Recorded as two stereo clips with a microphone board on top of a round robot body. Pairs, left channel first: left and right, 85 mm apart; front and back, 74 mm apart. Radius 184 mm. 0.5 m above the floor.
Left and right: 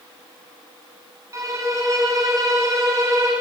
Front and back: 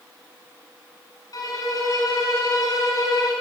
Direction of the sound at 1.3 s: 40° right.